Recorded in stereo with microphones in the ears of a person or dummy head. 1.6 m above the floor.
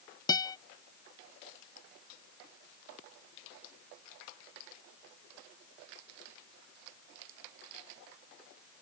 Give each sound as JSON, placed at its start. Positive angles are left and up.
{"t": 0.3, "sound": "a guitar", "side_deg": 20}